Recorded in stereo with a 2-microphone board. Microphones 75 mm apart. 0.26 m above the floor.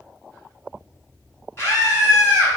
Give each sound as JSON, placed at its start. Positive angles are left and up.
{"t": 1.6, "sound": "a scream", "side_deg": 35, "distance_m": 2.0}